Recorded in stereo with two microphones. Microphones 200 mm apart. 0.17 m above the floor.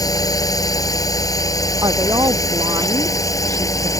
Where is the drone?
15° left (ahead or behind).